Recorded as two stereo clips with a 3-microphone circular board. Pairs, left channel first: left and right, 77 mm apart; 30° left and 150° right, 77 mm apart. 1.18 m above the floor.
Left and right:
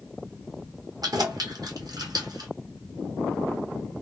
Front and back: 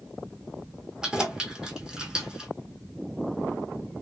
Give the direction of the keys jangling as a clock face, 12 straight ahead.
2 o'clock.